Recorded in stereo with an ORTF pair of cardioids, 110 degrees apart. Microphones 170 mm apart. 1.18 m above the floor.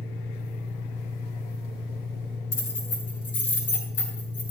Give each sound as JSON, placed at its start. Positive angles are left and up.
{"t": 0.0, "sound": "an engine running", "azimuth_deg": 60, "distance_m": 2.0}
{"t": 2.5, "sound": "keys jangling", "azimuth_deg": 65, "distance_m": 8.0}